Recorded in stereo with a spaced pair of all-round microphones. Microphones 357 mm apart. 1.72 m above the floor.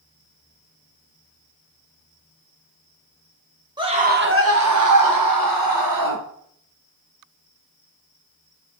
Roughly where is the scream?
Centre.